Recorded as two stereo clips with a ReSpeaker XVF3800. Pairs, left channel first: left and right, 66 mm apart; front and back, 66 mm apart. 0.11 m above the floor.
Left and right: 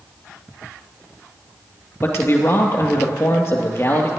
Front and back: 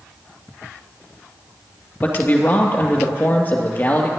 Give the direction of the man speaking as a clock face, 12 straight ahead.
10 o'clock.